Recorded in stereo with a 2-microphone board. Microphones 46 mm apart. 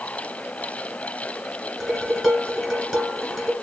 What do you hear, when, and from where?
1.8 s dishes clattering: 5° left (ahead or behind), 3 m